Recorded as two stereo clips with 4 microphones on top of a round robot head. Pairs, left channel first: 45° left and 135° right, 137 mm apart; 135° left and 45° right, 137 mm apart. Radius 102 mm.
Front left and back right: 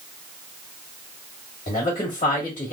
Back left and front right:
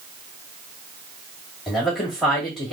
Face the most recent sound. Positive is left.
turn(degrees=45)